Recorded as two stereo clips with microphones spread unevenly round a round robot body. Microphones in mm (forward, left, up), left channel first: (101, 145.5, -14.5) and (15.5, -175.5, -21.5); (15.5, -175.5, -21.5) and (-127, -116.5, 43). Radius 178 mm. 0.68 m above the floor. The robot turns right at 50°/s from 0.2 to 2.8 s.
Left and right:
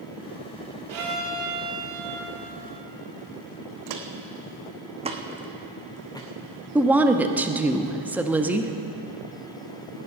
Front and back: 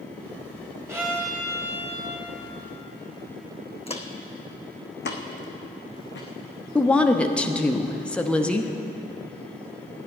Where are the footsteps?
85° right, 1.8 m; by 6.3 s straight ahead, 2.5 m.